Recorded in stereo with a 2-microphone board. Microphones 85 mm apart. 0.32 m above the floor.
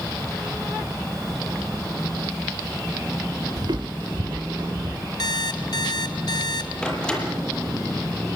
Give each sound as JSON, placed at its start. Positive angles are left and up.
{"t": 3.6, "sound": "footsteps", "side_deg": -50, "distance_m": 0.5}
{"t": 5.2, "sound": "an alarm clock", "side_deg": 55, "distance_m": 1.7}
{"t": 6.8, "sound": "a door slam", "side_deg": 10, "distance_m": 6.0}